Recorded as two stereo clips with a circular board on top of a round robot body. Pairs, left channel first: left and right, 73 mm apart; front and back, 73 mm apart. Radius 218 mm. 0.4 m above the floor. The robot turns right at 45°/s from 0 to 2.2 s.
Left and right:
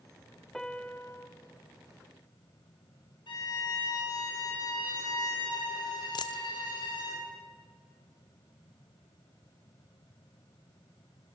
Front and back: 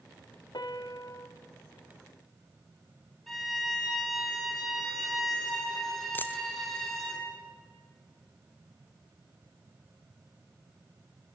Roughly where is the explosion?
No explosion in this recording.